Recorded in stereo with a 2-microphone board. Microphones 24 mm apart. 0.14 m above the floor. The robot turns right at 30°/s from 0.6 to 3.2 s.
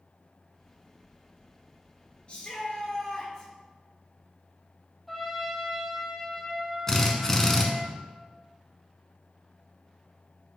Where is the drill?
20° left (ahead or behind), 0.9 m.